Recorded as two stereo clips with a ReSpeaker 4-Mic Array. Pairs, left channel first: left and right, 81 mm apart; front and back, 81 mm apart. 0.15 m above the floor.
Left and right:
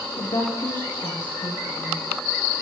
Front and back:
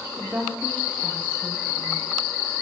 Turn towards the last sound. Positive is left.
turn(degrees=110)